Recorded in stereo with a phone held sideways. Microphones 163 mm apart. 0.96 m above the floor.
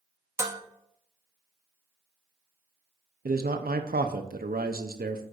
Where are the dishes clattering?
20° right (ahead or behind), 0.7 m.